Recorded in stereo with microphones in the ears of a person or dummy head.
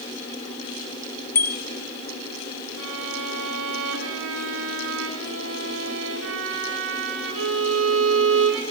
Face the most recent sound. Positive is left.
turn(degrees=-70)  # may be behind; listen again after turning